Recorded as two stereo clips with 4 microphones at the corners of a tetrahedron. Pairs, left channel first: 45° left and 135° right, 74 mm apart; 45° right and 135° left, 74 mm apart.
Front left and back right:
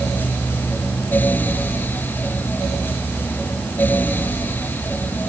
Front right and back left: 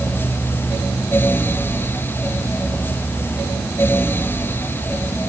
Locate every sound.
Only background noise.